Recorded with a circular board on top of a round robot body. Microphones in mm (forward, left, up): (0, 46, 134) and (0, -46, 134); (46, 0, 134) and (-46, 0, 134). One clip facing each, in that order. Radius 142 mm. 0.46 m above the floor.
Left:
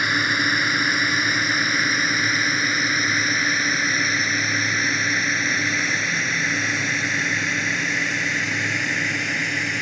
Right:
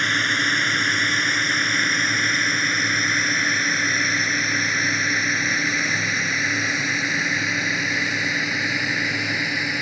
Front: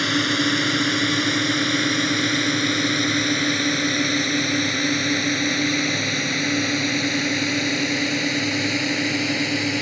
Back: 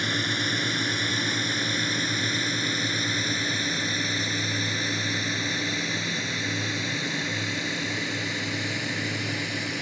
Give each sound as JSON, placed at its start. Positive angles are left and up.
{"t": 0.0, "sound": "a drone", "azimuth_deg": 10}